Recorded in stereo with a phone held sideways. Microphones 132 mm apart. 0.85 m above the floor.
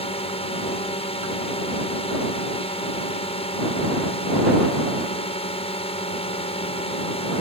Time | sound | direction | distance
0.0 | a drone | 45° left (ahead or behind) | ?